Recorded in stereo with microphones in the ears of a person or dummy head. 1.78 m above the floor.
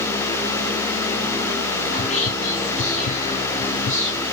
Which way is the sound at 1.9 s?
45° left (ahead or behind).